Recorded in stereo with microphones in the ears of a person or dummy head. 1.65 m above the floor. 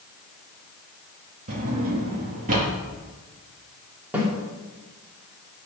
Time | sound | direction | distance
1.5 | a drawer | 45° right (ahead or behind) | 1.7 m
4.1 | a snare drum | 10° right (ahead or behind) | 2.5 m